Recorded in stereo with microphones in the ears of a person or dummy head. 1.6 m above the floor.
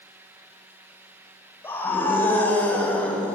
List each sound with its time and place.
1.6 s a scream: 15° left (ahead or behind), 7.5 m; by 3.4 s 10° left (ahead or behind), 6 m